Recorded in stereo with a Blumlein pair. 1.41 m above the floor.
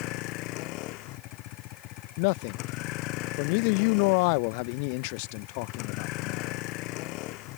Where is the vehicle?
40° left.